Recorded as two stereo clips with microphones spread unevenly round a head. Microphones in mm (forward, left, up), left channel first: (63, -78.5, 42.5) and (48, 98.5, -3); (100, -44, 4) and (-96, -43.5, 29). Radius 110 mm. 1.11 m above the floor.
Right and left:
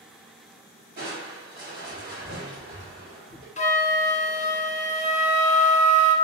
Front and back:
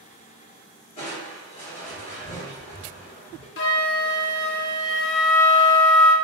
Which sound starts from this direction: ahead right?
A flute, at 3.6 s.